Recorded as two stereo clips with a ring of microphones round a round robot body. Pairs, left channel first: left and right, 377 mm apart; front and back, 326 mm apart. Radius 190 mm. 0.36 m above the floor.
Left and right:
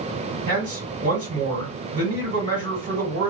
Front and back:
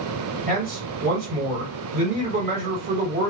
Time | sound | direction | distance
0.5 | a man speaking | 125° right | 1.9 m